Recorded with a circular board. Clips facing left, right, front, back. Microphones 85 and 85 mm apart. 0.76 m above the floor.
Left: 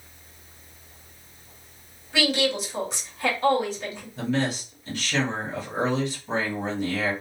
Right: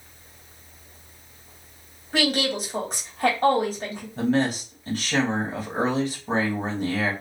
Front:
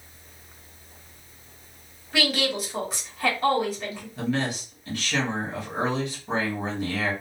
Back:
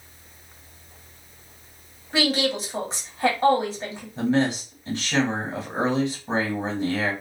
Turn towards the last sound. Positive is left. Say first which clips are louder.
# right 4 dB, back 6 dB
turn(degrees=-120)